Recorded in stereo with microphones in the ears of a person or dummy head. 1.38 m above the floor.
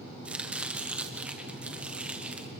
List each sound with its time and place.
0.2 s chopping: 5° right (ahead or behind), 0.9 m